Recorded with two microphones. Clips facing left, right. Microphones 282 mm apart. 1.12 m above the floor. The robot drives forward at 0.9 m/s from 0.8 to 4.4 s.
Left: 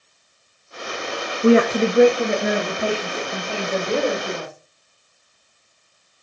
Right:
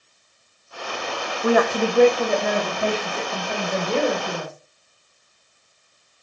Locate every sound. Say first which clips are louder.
1.4 s a woman speaking: left 5 dB; 30° left (ahead or behind), 0.5 m; by 4.5 s 5° left (ahead or behind), 3 m